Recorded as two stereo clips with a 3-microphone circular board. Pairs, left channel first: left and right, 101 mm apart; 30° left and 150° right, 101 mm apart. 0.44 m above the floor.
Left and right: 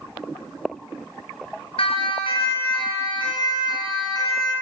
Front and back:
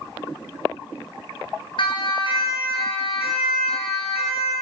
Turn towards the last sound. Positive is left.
turn(degrees=40)